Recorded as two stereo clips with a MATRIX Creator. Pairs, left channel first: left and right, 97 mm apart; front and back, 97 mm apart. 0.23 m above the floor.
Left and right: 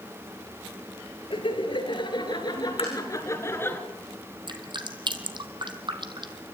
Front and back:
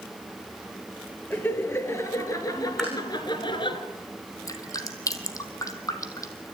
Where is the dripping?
55° right, 1.7 m.